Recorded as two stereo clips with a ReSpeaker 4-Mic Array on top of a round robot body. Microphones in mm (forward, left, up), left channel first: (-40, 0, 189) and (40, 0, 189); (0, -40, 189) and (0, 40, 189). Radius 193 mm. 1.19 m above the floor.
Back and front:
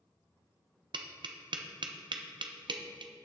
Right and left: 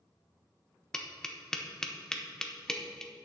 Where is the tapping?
10° right, 0.9 m.